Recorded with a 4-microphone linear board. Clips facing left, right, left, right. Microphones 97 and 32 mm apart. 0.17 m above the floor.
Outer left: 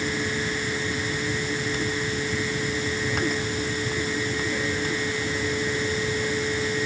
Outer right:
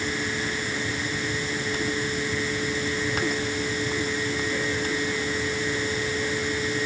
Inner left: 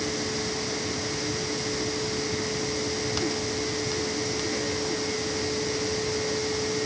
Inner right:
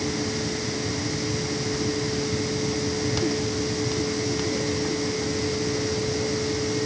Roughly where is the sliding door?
No sliding door in this recording.